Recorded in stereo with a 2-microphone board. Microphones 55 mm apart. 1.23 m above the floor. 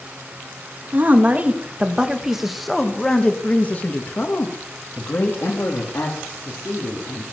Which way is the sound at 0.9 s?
40° right (ahead or behind).